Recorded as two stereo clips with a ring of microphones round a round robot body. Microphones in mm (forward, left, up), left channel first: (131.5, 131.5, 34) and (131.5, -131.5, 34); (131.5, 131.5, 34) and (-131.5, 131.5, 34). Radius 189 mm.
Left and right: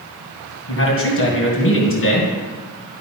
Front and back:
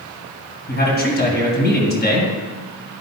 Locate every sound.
0.7 s a man speaking: 50° left, 3 m